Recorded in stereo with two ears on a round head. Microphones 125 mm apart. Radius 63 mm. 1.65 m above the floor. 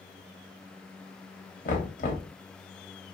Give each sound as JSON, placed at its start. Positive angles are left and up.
{"t": 1.6, "sound": "knocking", "side_deg": 60, "distance_m": 0.8}